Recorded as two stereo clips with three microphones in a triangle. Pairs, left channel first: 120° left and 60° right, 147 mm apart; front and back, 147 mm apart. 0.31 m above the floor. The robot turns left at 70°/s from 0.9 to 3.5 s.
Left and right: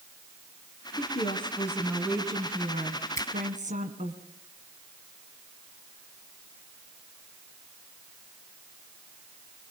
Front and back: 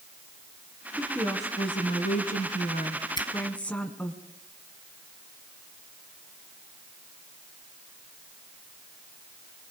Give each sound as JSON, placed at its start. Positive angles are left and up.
{"t": 1.0, "sound": "a woman speaking", "azimuth_deg": 95, "distance_m": 3.5}
{"t": 3.2, "sound": "a finger snap", "azimuth_deg": 55, "distance_m": 2.5}